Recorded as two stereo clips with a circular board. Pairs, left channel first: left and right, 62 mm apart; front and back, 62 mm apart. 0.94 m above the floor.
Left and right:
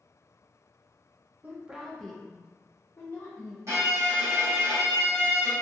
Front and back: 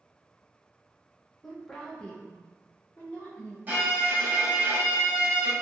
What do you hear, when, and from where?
1.4 s a woman speaking: 85° right, 0.6 m; by 3.6 s 55° left, 1.1 m
3.7 s a violin: 120° right, 1.3 m